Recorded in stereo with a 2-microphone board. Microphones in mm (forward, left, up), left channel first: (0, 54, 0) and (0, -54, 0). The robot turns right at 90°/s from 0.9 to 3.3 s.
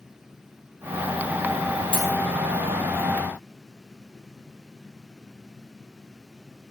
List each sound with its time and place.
1.9 s a dropped coin: 55° left (ahead or behind), 0.7 m; by 2.1 s 50° left (ahead or behind), 0.7 m